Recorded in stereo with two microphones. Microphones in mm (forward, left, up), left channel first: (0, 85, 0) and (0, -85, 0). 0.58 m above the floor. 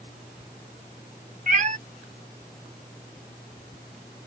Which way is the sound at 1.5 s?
50° right (ahead or behind).